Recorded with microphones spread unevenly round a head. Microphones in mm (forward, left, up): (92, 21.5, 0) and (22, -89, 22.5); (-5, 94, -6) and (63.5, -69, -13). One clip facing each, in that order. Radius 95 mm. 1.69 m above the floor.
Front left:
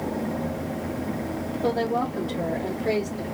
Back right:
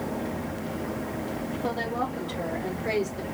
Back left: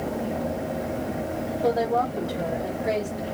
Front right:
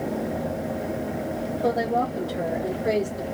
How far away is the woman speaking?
About 1.1 m.